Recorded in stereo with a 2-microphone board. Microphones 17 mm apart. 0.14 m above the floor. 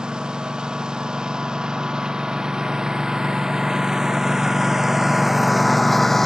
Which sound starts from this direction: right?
A lawn mower, at 0.0 s.